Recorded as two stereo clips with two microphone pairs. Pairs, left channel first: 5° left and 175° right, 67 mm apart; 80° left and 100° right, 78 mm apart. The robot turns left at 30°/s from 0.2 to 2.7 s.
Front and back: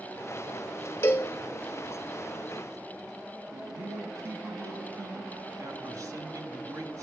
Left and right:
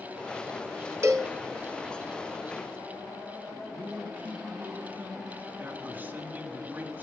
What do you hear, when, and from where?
1.0 s a cowbell: 50° right, 0.9 m; by 1.3 s 60° right, 0.9 m
3.7 s a man speaking: 165° right, 2.5 m